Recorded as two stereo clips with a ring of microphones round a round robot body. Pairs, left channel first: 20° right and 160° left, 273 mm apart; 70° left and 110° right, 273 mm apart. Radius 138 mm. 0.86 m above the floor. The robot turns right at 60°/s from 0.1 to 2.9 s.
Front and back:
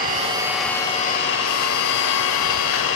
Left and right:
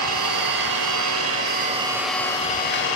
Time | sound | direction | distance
0.0 | an engine running | 145° right | 1.1 m